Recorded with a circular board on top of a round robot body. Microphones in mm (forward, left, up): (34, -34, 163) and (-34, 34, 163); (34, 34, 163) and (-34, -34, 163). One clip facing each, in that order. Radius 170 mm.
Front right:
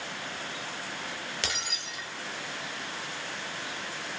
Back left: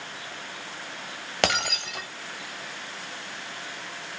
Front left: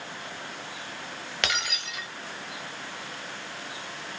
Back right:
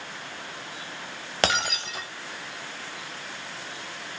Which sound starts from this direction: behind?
Breaking glass, at 1.4 s.